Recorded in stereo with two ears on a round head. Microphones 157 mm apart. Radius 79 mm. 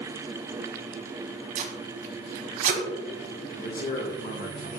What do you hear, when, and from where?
1.6 s tape being pulled: 45° right (ahead or behind), 1.4 m
3.5 s a man speaking: 50° left (ahead or behind), 1.3 m